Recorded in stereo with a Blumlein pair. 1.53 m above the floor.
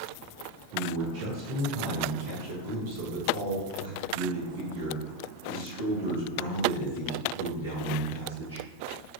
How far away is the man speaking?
About 1.5 m.